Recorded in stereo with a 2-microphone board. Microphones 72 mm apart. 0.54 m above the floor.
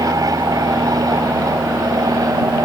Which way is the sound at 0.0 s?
55° right (ahead or behind).